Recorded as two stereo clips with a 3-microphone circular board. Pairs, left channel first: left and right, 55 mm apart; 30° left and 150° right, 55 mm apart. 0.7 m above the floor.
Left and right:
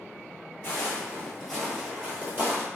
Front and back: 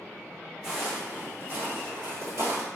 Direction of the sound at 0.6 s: 130° left.